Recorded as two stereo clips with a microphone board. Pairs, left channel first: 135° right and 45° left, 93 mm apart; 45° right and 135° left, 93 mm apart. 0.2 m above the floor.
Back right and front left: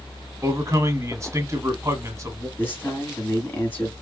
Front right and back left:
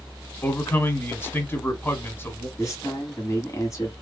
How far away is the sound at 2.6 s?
About 1.9 m.